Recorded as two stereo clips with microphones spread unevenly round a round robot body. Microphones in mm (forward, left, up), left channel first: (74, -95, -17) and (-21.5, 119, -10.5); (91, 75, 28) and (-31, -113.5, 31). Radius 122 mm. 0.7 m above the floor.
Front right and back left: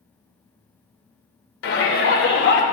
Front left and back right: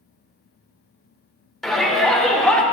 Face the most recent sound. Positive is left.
turn(degrees=-30)